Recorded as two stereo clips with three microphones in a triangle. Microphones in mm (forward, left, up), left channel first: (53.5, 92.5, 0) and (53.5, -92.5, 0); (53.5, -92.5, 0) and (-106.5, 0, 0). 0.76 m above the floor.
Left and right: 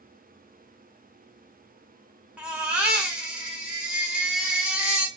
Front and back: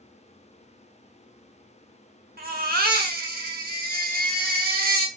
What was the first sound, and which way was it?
A baby crying, 175° right.